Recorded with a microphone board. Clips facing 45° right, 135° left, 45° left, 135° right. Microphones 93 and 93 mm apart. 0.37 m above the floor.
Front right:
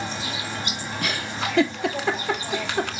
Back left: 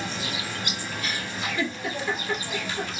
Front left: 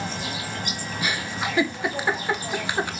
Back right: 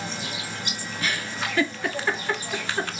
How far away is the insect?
About 1.6 m.